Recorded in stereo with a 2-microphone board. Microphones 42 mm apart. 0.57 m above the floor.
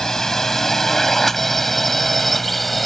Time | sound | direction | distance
0.0 | a drone | 10° left (ahead or behind) | ?